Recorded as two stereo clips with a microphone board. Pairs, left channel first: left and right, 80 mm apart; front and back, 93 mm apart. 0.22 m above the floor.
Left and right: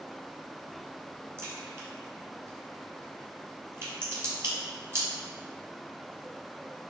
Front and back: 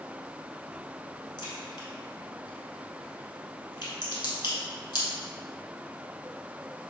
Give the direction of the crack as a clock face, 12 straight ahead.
1 o'clock.